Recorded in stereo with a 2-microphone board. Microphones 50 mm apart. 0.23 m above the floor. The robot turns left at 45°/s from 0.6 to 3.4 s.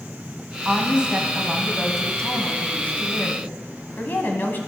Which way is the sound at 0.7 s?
135° right.